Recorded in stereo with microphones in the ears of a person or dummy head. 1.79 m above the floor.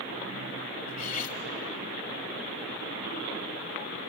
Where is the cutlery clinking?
50° left (ahead or behind), 3 m.